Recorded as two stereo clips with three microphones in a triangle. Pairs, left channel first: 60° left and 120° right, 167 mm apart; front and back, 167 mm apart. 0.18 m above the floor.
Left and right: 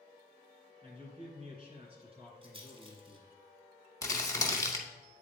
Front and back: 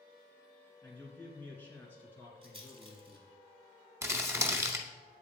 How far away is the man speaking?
About 2 m.